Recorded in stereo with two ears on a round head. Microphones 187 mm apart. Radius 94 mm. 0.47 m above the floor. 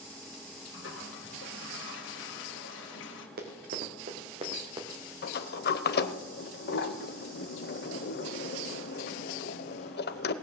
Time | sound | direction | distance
0.7 | a toilet flushing | 60° left (ahead or behind) | 1.8 m
3.4 | running footsteps | 45° right (ahead or behind) | 2.5 m
5.2 | a sliding door | 50° left (ahead or behind) | 0.8 m